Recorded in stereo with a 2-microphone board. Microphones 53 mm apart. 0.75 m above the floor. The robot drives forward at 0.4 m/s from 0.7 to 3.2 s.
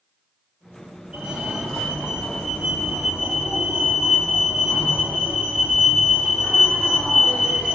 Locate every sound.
1.1 s a fire alarm: 15° right (ahead or behind), 2.5 m